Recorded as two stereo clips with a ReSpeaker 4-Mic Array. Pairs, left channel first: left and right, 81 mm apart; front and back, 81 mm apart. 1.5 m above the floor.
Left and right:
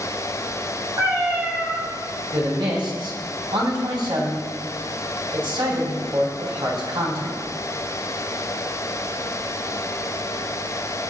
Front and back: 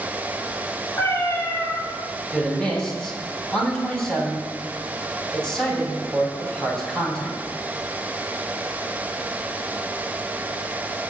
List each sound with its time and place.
1.0 s a cat meowing: 50° right, 5.5 m
2.3 s a man speaking: 80° right, 4 m